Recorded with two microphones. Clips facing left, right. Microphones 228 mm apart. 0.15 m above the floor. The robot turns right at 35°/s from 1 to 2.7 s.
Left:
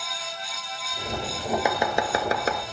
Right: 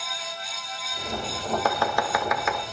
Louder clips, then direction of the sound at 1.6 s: Even; 15° left (ahead or behind).